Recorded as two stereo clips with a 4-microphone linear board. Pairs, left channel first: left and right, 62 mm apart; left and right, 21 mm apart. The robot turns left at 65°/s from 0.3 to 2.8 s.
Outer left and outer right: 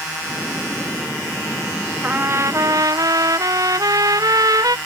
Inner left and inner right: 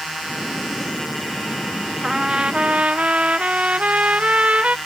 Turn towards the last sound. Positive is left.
turn(degrees=-75)